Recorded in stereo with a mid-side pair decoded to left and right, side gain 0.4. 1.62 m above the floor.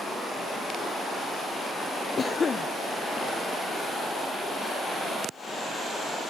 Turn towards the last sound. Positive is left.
turn(degrees=40)